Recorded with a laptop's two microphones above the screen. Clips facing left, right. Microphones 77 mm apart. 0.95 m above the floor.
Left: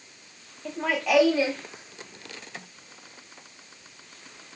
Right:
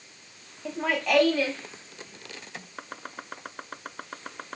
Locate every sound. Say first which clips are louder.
0.7 s laughter: left 1 dB; 5° right (ahead or behind); by 2.7 s 30° left (ahead or behind)
2.8 s chopping: right 11 dB; 65° right (ahead or behind)